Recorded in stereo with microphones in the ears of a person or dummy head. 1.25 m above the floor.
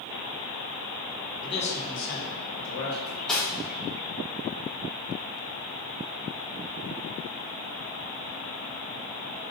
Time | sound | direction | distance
1.4 | a man speaking | 25° left (ahead or behind) | 0.9 m
3.1 | cutlery clinking | 5° left (ahead or behind) | 0.7 m